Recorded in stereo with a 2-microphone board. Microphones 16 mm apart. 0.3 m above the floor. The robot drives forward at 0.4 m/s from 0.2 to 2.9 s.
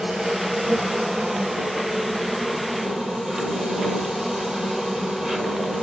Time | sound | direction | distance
0.0 | an insect | 55° right (ahead or behind) | 1.7 m